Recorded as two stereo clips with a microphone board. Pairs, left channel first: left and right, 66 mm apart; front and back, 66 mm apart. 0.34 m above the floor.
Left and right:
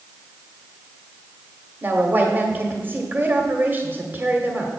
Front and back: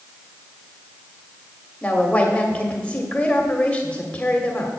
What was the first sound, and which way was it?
A woman speaking, 60° right.